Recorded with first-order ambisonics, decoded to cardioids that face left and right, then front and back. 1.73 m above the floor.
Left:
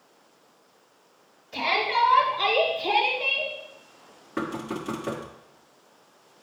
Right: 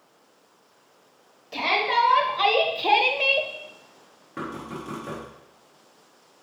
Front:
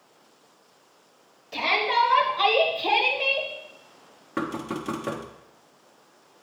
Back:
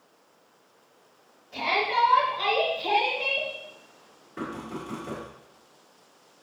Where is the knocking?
20° left, 1.1 m.